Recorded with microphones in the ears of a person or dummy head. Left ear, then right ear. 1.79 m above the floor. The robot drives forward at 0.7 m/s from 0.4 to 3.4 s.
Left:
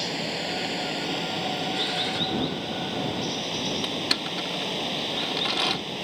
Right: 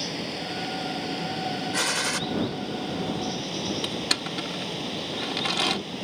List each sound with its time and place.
0.0 s running water: 30° left (ahead or behind); by 6.0 s 25° left (ahead or behind)
1.7 s a gunshot: 45° right (ahead or behind)
3.8 s crushing: centre (ahead or behind)